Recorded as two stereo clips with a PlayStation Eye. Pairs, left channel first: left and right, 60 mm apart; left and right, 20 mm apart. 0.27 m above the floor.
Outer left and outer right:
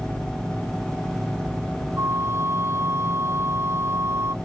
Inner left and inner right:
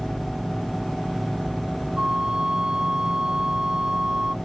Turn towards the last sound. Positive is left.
turn(degrees=-45)  # may be behind; listen again after turning